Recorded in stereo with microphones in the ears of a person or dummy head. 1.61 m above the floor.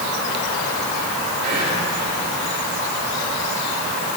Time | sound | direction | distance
1.4 | whispering | 50° right (ahead or behind) | 6.5 m